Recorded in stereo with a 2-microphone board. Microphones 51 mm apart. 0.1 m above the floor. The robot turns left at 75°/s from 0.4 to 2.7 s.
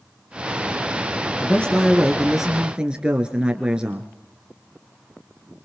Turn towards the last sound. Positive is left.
turn(degrees=-35)